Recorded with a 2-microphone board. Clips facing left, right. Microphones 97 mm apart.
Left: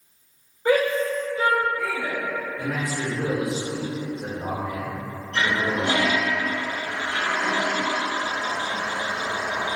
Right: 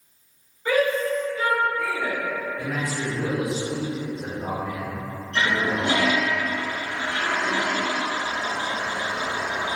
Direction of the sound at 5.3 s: 75° left (ahead or behind).